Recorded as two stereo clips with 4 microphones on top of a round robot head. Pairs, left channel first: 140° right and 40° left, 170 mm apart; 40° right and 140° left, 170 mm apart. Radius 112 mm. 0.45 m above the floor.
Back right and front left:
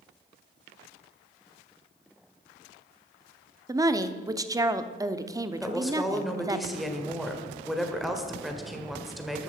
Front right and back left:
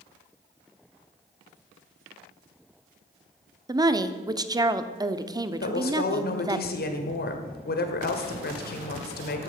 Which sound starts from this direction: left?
A woman speaking, at 3.7 s.